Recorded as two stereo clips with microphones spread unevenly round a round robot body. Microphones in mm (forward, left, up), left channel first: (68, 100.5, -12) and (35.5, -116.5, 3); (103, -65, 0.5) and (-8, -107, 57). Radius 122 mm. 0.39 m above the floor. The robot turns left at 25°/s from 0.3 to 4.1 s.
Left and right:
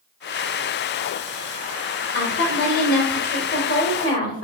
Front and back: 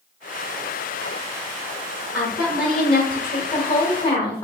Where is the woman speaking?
100° left, 1.3 m; by 4.5 s 55° left, 1.3 m.